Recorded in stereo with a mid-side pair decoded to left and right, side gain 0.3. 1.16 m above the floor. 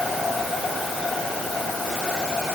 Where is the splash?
No splash in this recording.